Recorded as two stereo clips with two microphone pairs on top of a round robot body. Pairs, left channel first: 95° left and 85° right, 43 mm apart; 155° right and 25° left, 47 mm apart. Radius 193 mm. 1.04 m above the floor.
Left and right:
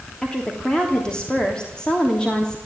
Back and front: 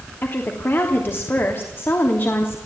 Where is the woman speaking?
165° left, 3 m.